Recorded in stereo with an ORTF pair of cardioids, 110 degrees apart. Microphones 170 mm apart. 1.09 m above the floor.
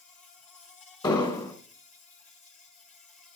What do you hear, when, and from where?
0.0 s an insect: 50° left, 3 m
1.0 s an explosion: 25° left, 2.5 m